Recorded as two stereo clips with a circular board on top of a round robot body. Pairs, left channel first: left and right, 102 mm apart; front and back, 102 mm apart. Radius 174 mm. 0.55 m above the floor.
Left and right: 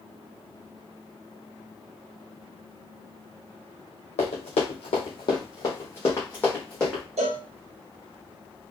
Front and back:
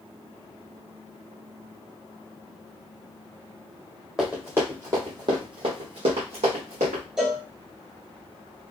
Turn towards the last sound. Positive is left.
turn(degrees=-95)